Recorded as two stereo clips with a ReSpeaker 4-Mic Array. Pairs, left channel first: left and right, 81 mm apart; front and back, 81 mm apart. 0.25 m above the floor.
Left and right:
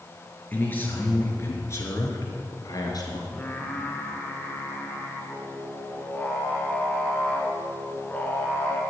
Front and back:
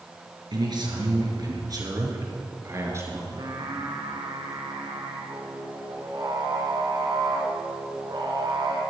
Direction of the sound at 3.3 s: 160° left.